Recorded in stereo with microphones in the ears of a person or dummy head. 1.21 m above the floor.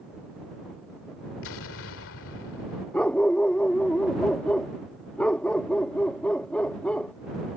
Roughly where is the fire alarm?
No fire alarm in this recording.